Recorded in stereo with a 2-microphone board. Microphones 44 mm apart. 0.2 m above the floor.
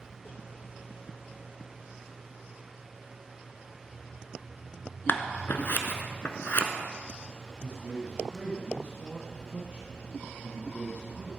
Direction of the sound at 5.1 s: 50° left (ahead or behind).